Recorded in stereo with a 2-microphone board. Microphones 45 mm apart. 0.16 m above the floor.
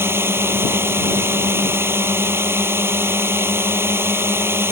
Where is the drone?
55° right (ahead or behind).